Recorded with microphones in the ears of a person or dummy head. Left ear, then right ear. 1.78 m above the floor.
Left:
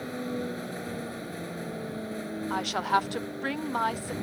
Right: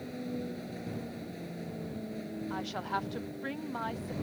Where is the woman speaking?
30° left (ahead or behind).